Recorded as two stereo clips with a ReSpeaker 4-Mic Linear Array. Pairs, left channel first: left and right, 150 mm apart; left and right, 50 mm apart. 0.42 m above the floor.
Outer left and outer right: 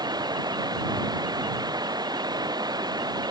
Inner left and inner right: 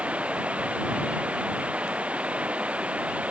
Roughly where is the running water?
Right.